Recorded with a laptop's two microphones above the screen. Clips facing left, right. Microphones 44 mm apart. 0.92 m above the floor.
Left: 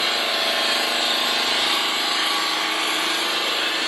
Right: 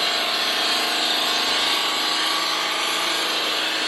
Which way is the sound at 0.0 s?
Centre (ahead or behind).